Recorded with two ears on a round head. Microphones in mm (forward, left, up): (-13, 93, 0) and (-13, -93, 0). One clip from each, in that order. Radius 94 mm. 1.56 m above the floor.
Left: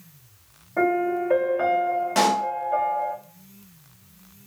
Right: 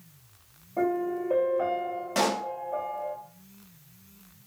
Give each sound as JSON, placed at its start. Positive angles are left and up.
{"t": 0.8, "sound": "a piano", "side_deg": 65, "distance_m": 2.5}
{"t": 2.1, "sound": "a pop", "side_deg": 5, "distance_m": 1.1}